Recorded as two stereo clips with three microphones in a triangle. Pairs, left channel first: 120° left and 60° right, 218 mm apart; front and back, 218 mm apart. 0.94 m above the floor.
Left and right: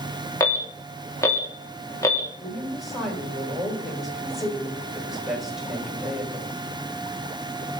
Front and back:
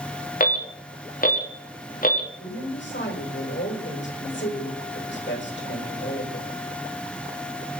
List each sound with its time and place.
0.4 s an alarm: 45° left, 2.5 m
2.4 s a woman speaking: 30° left, 4.5 m